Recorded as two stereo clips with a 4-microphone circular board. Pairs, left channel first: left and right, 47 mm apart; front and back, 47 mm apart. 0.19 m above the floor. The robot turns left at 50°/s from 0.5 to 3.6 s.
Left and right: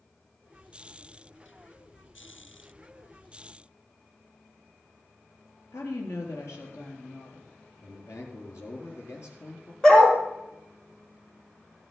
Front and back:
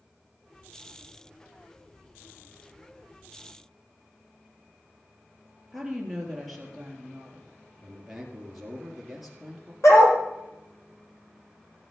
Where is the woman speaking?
90° left, 4 m.